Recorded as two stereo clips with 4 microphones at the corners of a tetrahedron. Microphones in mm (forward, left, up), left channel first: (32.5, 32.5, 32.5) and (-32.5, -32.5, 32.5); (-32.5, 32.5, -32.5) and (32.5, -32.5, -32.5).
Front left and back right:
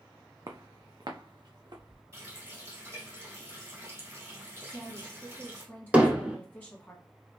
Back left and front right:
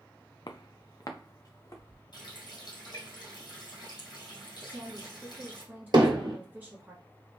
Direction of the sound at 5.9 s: 60° right.